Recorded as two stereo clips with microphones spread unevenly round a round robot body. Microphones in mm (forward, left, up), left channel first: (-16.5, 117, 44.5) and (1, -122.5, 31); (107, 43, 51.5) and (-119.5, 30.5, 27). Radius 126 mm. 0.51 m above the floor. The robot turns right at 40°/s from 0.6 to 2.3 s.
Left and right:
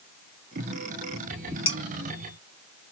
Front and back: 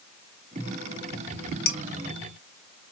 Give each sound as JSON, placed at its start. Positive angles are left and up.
{"t": 1.7, "sound": "dishes clattering", "azimuth_deg": 25, "distance_m": 0.9}